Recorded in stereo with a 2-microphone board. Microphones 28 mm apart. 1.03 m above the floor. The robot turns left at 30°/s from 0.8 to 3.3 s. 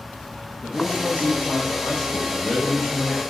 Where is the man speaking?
80° left, 1.0 m; by 3.2 s 10° left, 1.0 m.